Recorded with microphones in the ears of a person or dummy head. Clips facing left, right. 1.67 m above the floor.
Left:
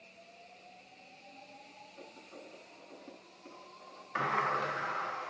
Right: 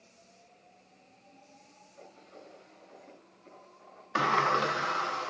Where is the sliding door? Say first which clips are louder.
Right 6 dB; 65° right (ahead or behind), 1.2 m.